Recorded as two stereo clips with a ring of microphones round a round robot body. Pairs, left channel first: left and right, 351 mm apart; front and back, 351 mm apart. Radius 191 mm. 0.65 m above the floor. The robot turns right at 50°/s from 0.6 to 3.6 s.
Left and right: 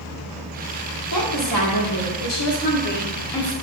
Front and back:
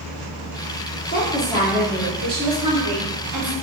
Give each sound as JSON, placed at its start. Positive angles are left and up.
{"t": 1.1, "sound": "a woman speaking", "azimuth_deg": 60, "distance_m": 1.2}